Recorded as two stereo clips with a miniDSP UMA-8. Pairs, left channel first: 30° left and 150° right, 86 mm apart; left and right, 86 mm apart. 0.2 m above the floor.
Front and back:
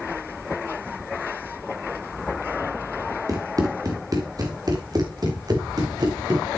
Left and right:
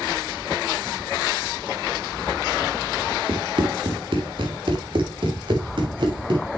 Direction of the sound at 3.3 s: 105° right.